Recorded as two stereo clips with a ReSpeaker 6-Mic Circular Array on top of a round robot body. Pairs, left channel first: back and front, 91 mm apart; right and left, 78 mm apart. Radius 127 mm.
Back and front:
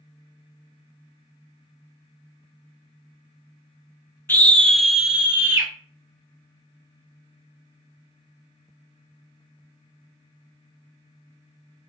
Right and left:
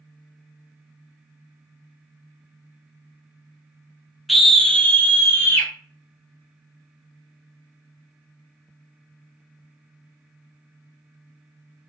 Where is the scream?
175° left, 0.9 m; by 5.7 s 55° right, 1.1 m.